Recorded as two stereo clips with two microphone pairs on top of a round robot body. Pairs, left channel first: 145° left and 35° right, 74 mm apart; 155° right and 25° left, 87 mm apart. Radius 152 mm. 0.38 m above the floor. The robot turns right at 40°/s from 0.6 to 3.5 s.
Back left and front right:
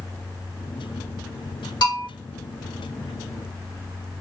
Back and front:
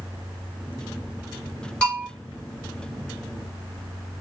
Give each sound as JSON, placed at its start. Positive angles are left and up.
{"t": 1.8, "sound": "a bell", "azimuth_deg": 130, "distance_m": 2.5}